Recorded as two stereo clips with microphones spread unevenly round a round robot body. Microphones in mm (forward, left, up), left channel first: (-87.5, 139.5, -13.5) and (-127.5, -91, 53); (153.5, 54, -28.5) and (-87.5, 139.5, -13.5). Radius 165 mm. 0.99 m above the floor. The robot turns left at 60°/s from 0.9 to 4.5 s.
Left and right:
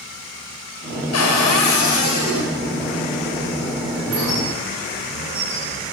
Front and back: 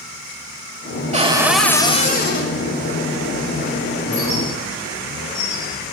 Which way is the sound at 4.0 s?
80° right.